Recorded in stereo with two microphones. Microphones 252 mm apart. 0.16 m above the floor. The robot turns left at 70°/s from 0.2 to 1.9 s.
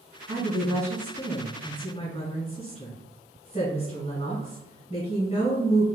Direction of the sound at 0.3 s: 120° right.